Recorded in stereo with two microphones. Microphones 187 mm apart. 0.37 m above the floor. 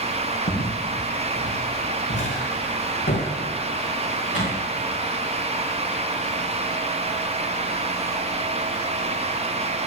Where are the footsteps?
75° left (ahead or behind), 6 m; by 4.6 s 80° left, 12.5 m.